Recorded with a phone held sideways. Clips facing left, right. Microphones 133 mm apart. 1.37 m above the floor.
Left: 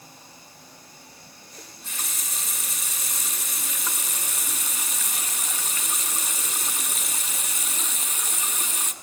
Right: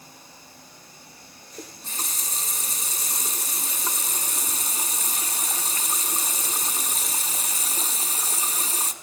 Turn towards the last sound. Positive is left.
turn(degrees=-35)  # may be behind; listen again after turning